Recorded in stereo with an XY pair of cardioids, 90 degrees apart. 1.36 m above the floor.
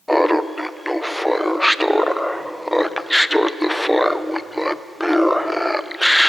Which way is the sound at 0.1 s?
5° left.